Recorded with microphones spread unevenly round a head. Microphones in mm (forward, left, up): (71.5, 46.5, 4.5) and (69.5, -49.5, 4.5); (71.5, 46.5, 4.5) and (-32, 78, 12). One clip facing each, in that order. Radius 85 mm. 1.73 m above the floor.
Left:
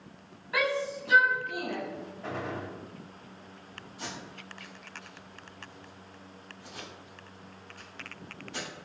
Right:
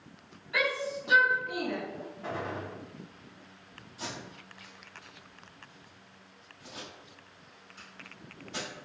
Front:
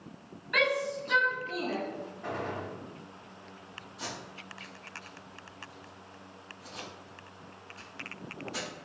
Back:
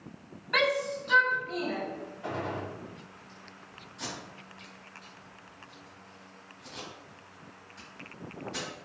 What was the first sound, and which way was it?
A shout, 130° left.